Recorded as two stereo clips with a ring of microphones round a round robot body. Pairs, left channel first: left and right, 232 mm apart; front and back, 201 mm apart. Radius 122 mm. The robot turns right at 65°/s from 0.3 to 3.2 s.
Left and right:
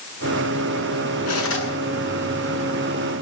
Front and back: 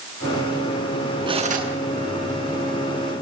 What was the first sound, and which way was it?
Cutlery clinking, 110° left.